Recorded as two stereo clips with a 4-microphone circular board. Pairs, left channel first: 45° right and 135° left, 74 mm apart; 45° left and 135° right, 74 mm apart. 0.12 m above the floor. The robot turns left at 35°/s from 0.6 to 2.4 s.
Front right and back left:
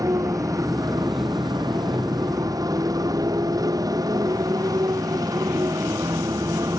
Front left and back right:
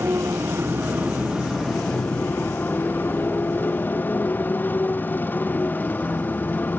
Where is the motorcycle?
170° left; by 6.8 s 110° left.